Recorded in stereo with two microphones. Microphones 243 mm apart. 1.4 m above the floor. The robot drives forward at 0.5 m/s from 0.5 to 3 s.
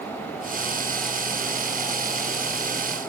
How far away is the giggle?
I don't hear a giggle.